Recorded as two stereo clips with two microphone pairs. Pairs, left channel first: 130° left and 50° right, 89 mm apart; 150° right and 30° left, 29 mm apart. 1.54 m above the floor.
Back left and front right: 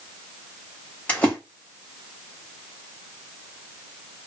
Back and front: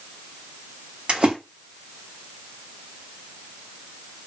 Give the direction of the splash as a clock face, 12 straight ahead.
10 o'clock.